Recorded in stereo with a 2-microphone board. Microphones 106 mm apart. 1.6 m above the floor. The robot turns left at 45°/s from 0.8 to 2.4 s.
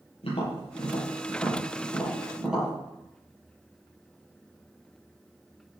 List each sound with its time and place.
0.2 s tapping: 65° left (ahead or behind), 8 m; by 2.7 s 5° right (ahead or behind), 8 m